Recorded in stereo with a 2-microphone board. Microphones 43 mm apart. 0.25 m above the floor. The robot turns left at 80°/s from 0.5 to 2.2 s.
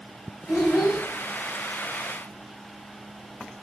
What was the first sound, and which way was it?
A child speaking, 30° right (ahead or behind).